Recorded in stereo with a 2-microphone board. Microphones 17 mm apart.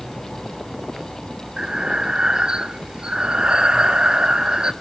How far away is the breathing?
About 0.7 m.